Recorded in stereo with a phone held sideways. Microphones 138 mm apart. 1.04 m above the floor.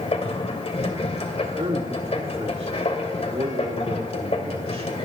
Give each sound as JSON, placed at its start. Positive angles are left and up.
{"t": 0.0, "sound": "a machine running", "side_deg": 50, "distance_m": 2.5}
{"t": 1.6, "sound": "a man speaking", "side_deg": -45, "distance_m": 2.0}